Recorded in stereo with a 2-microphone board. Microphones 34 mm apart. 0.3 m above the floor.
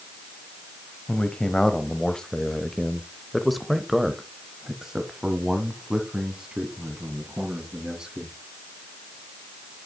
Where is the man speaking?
25° left (ahead or behind), 1.4 m; by 8.3 s 25° right (ahead or behind), 3 m.